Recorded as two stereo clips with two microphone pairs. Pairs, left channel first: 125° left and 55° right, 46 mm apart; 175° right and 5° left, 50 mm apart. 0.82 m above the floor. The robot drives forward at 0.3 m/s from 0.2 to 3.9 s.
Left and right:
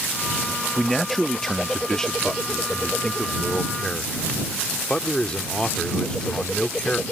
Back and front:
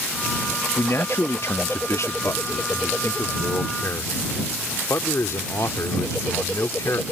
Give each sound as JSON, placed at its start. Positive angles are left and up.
{"t": 0.8, "sound": "a man speaking", "azimuth_deg": -145}